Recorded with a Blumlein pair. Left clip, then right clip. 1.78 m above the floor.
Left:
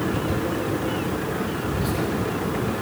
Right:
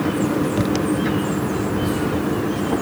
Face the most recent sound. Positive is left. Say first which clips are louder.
# right 3 dB
turn(degrees=20)